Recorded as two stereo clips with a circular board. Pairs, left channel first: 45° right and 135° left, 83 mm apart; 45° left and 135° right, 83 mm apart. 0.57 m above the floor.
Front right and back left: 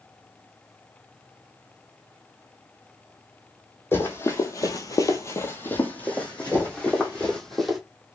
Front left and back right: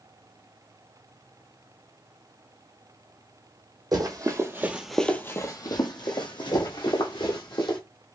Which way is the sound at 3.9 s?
105° right.